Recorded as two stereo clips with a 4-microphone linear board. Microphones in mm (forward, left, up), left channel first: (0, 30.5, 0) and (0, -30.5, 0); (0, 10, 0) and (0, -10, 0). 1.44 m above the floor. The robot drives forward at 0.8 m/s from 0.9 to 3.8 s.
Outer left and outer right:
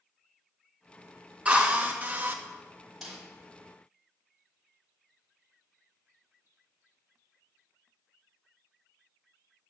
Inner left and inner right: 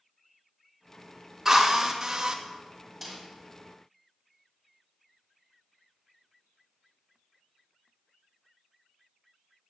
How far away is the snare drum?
About 5 m.